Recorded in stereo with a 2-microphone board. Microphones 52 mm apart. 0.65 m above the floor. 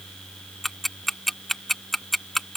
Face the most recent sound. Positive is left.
turn(degrees=5)  # may be behind; listen again after turning